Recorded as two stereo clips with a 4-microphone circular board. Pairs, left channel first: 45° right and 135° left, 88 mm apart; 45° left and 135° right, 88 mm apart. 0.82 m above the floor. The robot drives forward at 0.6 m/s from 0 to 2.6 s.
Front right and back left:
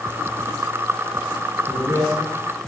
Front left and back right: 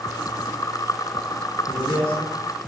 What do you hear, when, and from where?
1.7 s a man speaking: 170° left, 3 m